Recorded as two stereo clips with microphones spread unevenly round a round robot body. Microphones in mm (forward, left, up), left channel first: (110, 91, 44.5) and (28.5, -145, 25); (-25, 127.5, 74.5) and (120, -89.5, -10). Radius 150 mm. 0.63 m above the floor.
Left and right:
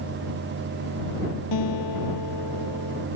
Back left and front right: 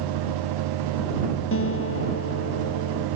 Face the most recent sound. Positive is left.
turn(degrees=85)